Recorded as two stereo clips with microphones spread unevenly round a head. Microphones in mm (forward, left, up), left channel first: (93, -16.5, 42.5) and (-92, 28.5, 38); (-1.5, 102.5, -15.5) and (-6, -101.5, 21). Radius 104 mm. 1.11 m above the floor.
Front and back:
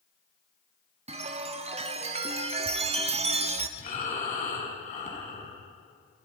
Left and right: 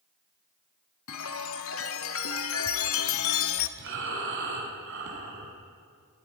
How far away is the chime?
About 1.5 m.